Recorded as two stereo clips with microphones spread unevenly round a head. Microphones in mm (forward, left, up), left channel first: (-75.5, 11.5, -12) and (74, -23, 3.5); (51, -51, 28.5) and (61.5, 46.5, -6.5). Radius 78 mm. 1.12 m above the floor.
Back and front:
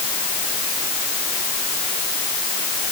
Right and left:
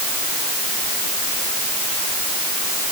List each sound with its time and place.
Only background noise.